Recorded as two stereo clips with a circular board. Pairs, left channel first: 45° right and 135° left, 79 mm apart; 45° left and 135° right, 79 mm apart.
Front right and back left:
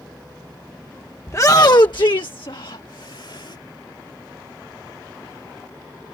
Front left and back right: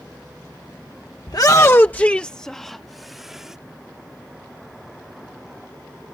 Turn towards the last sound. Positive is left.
turn(degrees=-50)